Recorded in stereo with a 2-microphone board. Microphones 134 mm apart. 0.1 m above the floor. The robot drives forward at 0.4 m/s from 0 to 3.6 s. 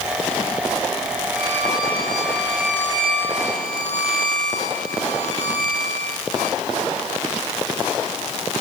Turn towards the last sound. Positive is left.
turn(degrees=-80)